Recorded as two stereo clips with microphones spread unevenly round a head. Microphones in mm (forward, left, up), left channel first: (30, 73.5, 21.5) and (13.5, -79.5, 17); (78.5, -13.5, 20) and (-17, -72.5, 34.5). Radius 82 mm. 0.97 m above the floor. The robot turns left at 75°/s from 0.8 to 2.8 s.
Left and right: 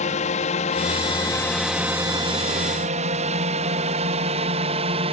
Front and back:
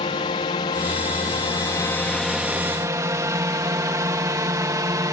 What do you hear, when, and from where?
0.0 s a drone: 60° left; by 5.1 s 100° right